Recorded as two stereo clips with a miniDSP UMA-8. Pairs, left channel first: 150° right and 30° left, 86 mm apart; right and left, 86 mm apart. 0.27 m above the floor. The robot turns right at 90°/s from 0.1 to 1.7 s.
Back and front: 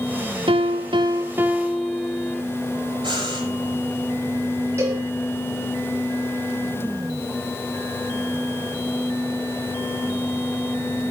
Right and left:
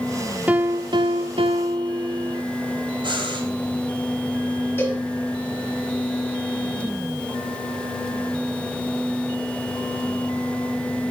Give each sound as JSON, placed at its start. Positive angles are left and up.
{"t": 0.5, "sound": "a piano", "azimuth_deg": 15, "distance_m": 1.2}
{"t": 3.0, "sound": "breathing", "azimuth_deg": 60, "distance_m": 5.0}
{"t": 4.8, "sound": "a cowbell", "azimuth_deg": -30, "distance_m": 6.0}